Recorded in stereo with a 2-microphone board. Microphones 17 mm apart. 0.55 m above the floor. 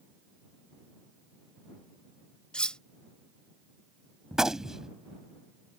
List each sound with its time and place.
2.5 s cutlery clinking: 75° left (ahead or behind)
4.3 s a gunshot: 35° right (ahead or behind)